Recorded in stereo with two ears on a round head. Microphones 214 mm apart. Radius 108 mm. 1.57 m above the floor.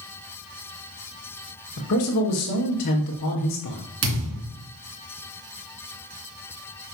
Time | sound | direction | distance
1.8 | a man speaking | 70° left (ahead or behind) | 1.8 m
4.0 | a thud | 60° right (ahead or behind) | 3 m